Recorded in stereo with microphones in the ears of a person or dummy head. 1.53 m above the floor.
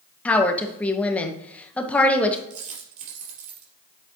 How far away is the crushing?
I don't hear crushing.